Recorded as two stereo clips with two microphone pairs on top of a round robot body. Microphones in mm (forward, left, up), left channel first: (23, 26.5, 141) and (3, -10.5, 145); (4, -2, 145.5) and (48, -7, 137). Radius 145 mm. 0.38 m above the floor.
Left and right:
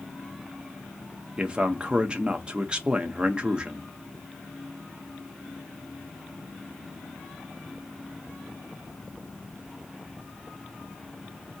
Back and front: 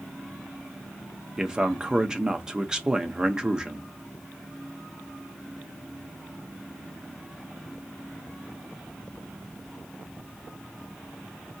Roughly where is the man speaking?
Ahead right.